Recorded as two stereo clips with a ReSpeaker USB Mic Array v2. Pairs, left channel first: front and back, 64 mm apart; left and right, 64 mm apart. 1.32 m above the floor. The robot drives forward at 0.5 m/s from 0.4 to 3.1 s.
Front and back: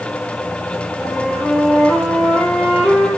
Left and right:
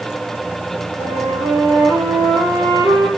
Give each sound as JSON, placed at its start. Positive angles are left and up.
{"t": 1.0, "sound": "a flute", "azimuth_deg": -85, "distance_m": 6.5}